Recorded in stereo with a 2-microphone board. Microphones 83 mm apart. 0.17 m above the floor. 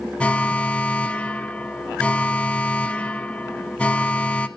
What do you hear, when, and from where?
0.2 s an alarm: 15° left (ahead or behind), 0.8 m